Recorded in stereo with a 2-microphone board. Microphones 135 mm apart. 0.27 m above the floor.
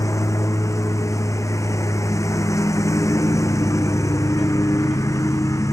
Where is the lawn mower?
20° left (ahead or behind).